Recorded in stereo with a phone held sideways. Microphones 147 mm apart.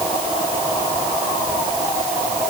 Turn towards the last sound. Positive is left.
No sound to turn to.